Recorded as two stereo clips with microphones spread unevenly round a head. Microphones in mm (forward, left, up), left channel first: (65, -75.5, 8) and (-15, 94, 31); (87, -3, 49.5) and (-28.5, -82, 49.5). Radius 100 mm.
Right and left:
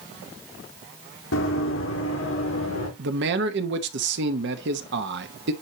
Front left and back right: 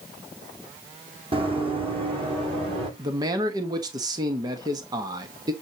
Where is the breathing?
No breathing in this recording.